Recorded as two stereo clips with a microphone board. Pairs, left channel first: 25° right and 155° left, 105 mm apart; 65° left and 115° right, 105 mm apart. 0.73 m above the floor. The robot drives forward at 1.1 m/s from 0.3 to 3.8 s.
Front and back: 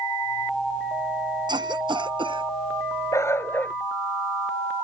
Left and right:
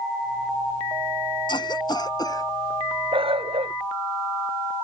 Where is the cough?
110° left; by 2.5 s 120° left.